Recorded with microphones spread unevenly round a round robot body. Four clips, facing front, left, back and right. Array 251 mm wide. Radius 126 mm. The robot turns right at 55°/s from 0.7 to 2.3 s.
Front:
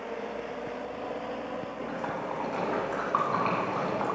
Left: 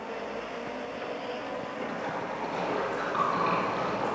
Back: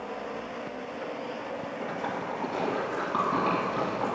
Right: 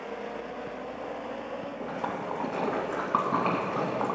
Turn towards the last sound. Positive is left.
turn(degrees=-95)